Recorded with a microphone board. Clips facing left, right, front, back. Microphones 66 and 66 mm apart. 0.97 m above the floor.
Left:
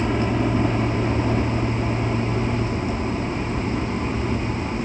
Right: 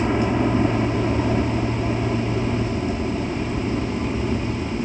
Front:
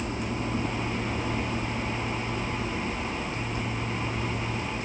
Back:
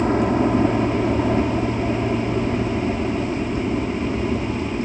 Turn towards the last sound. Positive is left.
turn(degrees=-170)